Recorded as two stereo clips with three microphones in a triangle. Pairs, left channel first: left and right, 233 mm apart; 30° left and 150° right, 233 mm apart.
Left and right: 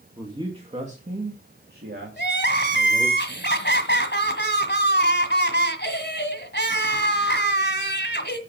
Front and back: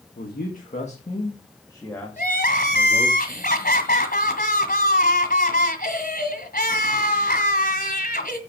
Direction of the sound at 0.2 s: 15° right.